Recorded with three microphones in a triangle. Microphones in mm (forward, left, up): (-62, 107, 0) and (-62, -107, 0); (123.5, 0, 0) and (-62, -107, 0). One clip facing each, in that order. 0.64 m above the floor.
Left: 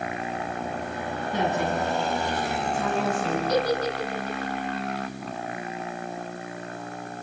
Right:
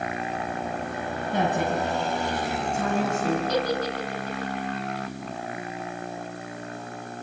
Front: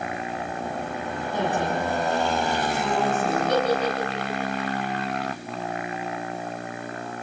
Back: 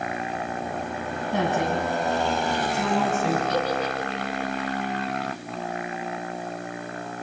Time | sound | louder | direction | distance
1.3 | a woman speaking | right 1 dB, back 2 dB | 130° right | 6 m
3.5 | a giggle | left 2 dB, front 3 dB | 45° left | 2.5 m